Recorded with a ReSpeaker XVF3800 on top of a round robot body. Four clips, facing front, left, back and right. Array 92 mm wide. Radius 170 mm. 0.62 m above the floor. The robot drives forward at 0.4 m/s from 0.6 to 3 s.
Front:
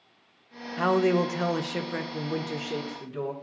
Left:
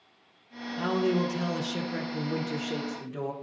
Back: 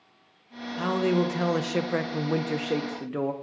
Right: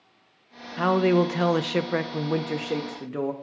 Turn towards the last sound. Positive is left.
turn(degrees=-145)